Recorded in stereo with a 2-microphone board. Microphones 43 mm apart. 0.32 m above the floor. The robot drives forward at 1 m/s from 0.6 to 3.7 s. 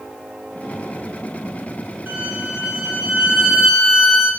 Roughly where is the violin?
Right.